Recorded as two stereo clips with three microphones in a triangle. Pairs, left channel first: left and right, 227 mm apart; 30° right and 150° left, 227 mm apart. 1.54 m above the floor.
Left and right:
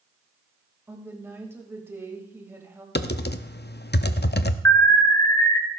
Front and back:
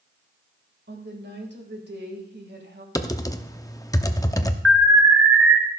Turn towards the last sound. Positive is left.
turn(degrees=170)